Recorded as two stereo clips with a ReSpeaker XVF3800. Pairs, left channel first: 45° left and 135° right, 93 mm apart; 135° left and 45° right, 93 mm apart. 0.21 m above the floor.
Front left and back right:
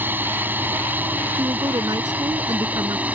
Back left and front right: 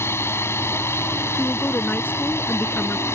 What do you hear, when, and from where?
0.0 s a drone: 175° left; by 3.1 s 165° left
1.4 s a woman speaking: 160° right